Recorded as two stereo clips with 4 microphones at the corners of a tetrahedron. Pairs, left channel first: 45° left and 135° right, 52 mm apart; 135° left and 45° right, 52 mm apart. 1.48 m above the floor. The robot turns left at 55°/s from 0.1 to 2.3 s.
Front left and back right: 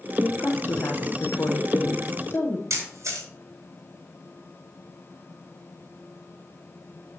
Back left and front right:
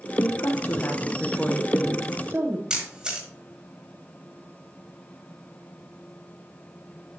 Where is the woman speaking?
120° left, 1.1 m; by 2.6 s straight ahead, 1.1 m.